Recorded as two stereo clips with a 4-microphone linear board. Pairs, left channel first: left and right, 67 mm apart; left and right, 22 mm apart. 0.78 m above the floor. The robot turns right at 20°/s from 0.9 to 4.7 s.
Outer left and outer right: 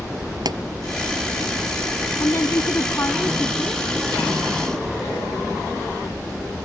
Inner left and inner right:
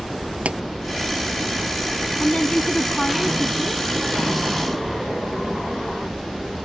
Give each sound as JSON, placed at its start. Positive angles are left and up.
{"t": 0.5, "sound": "a pop", "side_deg": -75}
{"t": 2.2, "sound": "a woman speaking", "azimuth_deg": 125}